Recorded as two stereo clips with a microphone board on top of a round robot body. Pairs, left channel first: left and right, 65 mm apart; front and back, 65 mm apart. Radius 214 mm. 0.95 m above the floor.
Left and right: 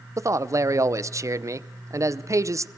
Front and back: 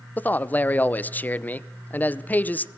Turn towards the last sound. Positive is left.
turn(degrees=-60)